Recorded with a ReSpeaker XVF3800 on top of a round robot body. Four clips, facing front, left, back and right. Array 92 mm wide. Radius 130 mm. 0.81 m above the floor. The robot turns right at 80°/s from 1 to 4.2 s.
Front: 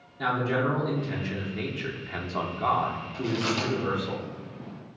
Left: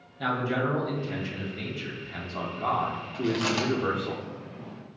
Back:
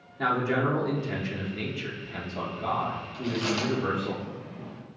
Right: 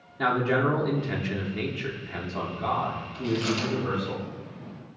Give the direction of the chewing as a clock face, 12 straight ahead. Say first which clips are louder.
Left 1 dB, front 1 dB; 10 o'clock.